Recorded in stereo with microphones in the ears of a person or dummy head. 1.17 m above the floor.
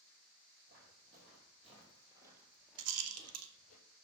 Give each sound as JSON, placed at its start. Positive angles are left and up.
{"t": 0.7, "sound": "footsteps", "side_deg": -40, "distance_m": 3.5}
{"t": 2.8, "sound": "a rattle", "side_deg": -85, "distance_m": 1.0}